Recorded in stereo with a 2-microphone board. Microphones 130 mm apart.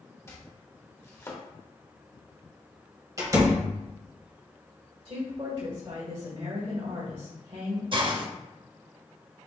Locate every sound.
0.3 s chopping: 20° left (ahead or behind), 0.9 m
3.2 s a door slam: 25° right (ahead or behind), 1.6 m
5.0 s a woman speaking: 40° right (ahead or behind), 1.6 m
7.9 s a hiss: 40° right (ahead or behind), 0.6 m